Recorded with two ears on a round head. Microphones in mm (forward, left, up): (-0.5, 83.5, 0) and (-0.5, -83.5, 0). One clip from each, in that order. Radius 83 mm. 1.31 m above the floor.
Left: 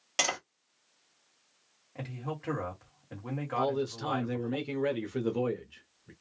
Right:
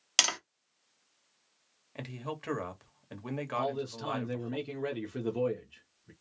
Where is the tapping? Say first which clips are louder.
Right 3 dB; 65° right (ahead or behind), 1.1 m.